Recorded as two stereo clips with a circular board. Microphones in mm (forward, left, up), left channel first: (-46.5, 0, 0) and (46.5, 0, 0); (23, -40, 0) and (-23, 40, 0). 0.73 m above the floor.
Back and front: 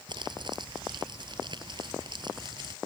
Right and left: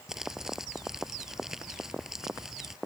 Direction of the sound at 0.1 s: 35° left.